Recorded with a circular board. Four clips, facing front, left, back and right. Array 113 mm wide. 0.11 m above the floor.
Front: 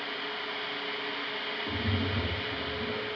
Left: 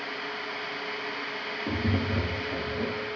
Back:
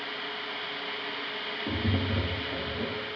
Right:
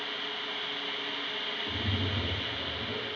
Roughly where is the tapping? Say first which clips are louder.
Left 8 dB, back 3 dB; behind left.